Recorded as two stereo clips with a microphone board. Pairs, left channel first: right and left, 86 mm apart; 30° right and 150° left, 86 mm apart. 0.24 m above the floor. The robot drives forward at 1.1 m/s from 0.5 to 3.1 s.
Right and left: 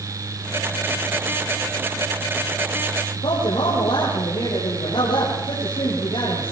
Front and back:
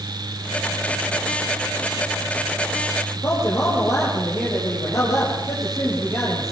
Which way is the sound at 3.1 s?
80° right.